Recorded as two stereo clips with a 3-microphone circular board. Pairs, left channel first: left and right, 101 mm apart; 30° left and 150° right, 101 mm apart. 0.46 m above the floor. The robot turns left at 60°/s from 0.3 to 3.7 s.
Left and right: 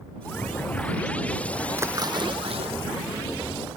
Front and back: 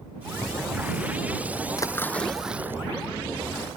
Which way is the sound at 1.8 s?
25° right.